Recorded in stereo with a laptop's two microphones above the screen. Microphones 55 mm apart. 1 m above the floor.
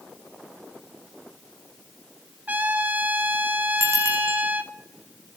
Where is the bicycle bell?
60° right (ahead or behind), 5.5 m.